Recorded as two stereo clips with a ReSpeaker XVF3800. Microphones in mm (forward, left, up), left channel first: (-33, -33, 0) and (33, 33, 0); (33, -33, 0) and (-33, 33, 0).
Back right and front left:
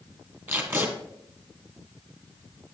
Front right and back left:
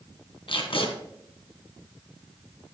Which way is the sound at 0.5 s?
20° right.